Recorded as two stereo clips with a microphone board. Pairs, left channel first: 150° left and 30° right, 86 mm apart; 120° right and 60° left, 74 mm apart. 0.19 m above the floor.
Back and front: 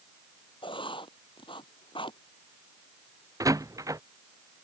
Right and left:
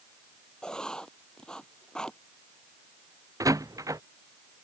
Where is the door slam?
20° left.